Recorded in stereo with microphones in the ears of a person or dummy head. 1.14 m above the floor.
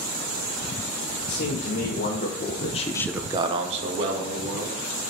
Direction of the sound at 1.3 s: 50° left (ahead or behind).